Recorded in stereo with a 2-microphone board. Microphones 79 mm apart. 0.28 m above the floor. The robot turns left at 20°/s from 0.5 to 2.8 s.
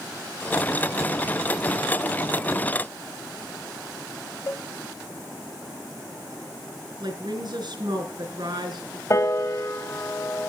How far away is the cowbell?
About 0.6 m.